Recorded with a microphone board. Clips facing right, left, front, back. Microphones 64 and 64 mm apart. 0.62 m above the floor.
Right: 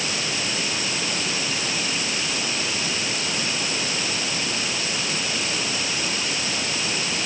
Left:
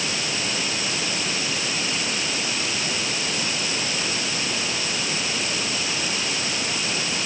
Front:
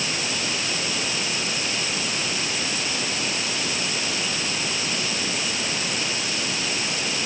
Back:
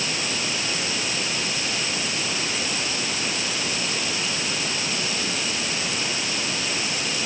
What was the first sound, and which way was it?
Only background noise.